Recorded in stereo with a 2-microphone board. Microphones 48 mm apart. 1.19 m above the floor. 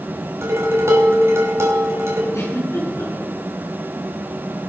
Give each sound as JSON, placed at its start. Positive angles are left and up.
{"t": 0.4, "sound": "dishes clattering", "side_deg": -60, "distance_m": 4.0}
{"t": 2.3, "sound": "a giggle", "side_deg": 75, "distance_m": 8.5}